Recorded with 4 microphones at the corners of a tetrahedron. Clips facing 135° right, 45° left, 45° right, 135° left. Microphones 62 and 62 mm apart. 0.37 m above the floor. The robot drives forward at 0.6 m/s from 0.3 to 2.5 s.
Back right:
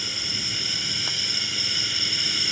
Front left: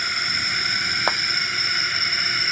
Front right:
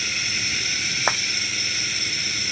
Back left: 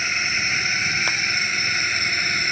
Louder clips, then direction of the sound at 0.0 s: Front left 8 dB, back left 5 dB; 80° left.